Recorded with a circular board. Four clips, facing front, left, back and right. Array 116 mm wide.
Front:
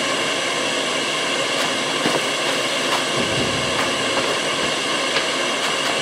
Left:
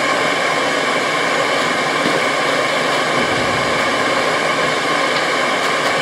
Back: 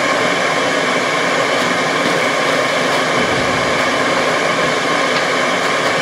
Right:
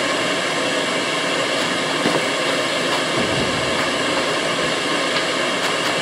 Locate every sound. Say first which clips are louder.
0.0 s running water: left 4 dB, back 8 dB; 150° left, 0.8 m